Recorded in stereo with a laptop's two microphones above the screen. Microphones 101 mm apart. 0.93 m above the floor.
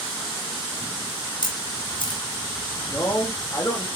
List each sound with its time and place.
1.4 s a camera shutter: 50° left (ahead or behind), 1.5 m
2.9 s a man speaking: 30° left (ahead or behind), 1.6 m